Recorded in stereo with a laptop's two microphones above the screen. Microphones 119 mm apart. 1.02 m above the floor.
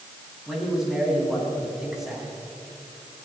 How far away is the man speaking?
About 9.5 m.